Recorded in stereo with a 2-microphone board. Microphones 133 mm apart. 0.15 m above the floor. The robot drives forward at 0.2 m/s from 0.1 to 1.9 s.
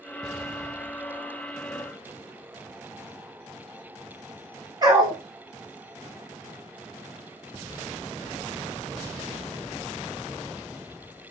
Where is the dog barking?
35° right (ahead or behind), 1.2 m.